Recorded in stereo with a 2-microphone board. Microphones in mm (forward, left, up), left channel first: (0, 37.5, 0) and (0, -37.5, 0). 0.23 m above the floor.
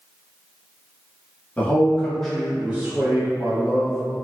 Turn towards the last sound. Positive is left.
turn(degrees=-45)  # may be behind; listen again after turning